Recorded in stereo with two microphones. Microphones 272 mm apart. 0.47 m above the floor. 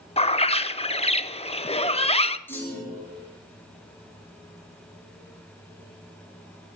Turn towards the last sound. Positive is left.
turn(degrees=10)  # may be behind; listen again after turning